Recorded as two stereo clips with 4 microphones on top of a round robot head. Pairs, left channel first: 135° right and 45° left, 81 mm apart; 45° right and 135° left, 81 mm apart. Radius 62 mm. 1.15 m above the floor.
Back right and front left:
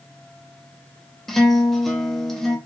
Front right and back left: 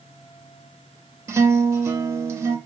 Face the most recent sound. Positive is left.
turn(degrees=145)